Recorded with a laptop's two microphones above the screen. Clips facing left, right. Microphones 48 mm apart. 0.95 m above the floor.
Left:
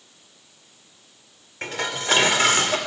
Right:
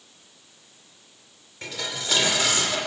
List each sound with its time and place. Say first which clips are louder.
1.6 s dishes clattering: left 5 dB; 40° left (ahead or behind), 1.8 m